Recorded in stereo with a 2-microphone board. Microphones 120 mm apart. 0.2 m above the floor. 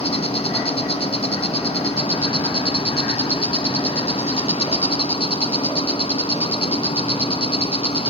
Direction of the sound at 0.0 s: 55° left (ahead or behind).